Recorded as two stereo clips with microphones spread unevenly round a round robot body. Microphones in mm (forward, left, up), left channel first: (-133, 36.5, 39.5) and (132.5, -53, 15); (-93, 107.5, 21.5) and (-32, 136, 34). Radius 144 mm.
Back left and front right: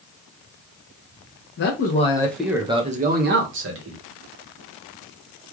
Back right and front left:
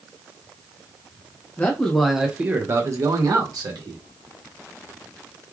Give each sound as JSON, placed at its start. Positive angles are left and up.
{"t": 1.6, "sound": "a man speaking", "azimuth_deg": -175, "distance_m": 0.6}